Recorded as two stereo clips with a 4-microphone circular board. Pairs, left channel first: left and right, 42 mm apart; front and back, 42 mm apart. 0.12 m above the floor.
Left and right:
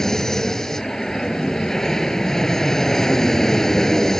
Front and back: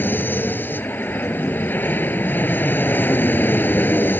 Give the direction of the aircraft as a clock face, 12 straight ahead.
12 o'clock.